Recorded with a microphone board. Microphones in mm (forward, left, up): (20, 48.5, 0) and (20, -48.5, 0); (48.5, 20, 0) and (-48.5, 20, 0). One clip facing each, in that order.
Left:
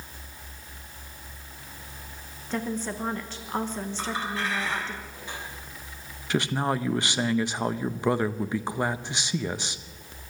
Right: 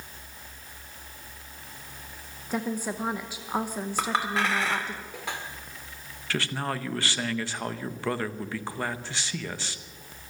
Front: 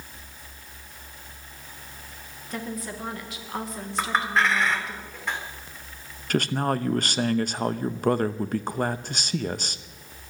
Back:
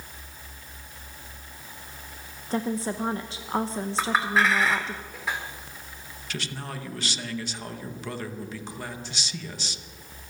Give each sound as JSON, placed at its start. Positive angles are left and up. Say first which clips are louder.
{"t": 2.5, "sound": "a woman speaking", "louder": "even, back 6 dB", "azimuth_deg": -160, "distance_m": 0.9}
{"t": 4.0, "sound": "a clink", "louder": "right 5 dB, even", "azimuth_deg": -95, "distance_m": 2.0}
{"t": 6.3, "sound": "a man speaking", "louder": "left 5 dB, front 12 dB", "azimuth_deg": 20, "distance_m": 0.7}